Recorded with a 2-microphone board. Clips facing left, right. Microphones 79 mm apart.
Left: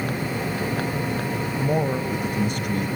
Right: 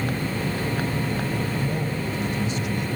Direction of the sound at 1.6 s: 55° left (ahead or behind).